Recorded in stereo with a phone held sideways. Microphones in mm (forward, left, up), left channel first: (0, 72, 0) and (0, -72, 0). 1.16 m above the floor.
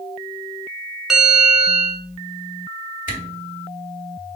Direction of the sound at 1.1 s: 5° right (ahead or behind).